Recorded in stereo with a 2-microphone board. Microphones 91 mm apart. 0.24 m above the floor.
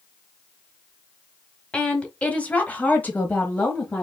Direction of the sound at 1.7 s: 10° left (ahead or behind).